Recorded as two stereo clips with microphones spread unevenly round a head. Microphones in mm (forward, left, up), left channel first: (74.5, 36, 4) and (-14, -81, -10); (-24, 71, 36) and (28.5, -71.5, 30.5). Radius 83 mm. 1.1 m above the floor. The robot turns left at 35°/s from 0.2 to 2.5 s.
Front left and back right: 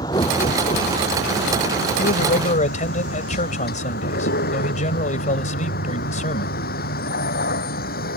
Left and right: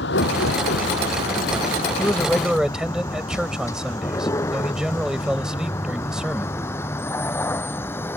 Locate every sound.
0.0 s a vehicle: 125° left; by 8.2 s 35° left
2.0 s a man speaking: 35° left; by 6.6 s 15° left